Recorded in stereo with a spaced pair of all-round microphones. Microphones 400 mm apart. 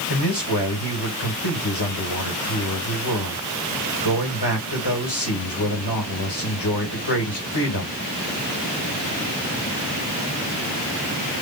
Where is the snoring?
No snoring in this recording.